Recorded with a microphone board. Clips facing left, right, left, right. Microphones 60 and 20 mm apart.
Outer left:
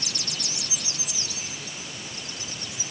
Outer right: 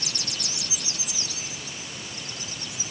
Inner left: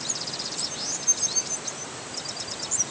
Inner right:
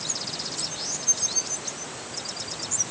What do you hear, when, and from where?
Only background noise.